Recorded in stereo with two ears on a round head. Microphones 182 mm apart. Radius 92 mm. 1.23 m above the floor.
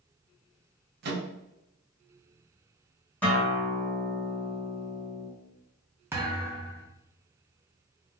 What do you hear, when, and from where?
1.0 s a microwave: 50° right (ahead or behind), 0.7 m
3.2 s a guitar: 10° left (ahead or behind), 1.3 m
6.1 s a thud: 10° right (ahead or behind), 0.6 m